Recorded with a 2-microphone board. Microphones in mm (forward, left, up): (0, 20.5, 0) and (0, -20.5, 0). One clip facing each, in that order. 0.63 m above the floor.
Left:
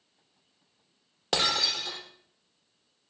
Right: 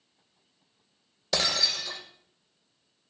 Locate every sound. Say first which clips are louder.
1.3 s breaking glass: left 1 dB; 75° left (ahead or behind), 4.5 m